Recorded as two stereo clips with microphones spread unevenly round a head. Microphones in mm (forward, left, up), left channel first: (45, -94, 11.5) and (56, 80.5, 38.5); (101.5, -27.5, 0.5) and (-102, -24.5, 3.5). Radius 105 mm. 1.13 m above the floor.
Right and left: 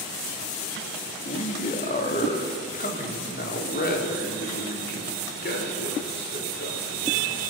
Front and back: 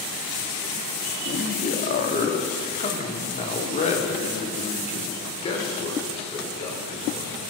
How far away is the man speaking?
About 3 m.